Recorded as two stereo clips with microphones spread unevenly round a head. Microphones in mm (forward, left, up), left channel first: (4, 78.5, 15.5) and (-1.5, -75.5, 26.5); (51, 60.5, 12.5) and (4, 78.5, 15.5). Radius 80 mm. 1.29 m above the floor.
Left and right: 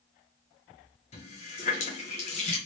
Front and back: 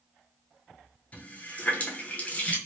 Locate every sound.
1.1 s a running tap: 40° left, 1.0 m